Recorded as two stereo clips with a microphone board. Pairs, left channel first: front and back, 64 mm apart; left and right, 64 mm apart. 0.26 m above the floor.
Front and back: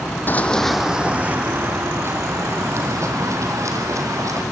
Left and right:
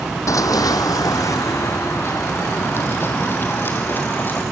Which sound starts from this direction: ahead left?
Running footsteps, at 0.3 s.